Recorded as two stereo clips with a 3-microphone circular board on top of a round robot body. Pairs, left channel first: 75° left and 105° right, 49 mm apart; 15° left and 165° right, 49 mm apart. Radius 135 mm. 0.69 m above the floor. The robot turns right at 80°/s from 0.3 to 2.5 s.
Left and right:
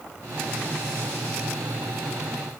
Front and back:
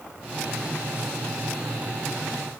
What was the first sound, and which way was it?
Only background noise.